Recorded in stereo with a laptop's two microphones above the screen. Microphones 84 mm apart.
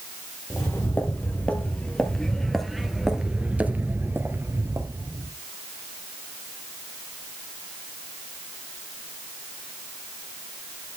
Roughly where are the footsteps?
Left.